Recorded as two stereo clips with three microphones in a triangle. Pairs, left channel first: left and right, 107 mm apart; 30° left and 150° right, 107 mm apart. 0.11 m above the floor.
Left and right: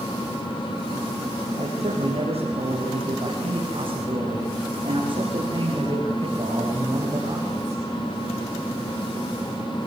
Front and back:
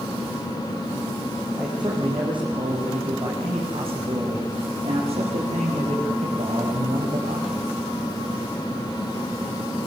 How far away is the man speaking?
About 5.5 m.